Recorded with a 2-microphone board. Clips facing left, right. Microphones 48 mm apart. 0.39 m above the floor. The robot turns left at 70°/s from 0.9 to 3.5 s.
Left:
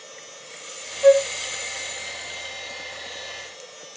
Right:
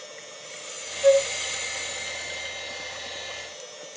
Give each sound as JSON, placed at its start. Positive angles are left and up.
{"t": 1.0, "sound": "a flute", "side_deg": 30, "distance_m": 0.7}